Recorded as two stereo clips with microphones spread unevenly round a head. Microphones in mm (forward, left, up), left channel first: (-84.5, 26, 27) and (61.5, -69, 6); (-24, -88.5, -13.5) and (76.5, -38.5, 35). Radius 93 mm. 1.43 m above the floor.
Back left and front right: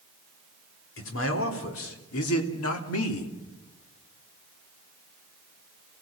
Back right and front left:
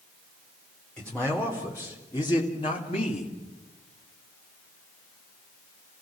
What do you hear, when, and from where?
1.0 s a man speaking: 120° left, 4 m; by 3.3 s 150° left, 2.5 m